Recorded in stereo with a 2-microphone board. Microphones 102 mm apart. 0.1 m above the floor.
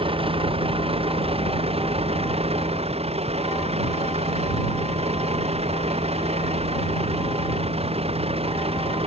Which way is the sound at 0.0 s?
65° right (ahead or behind).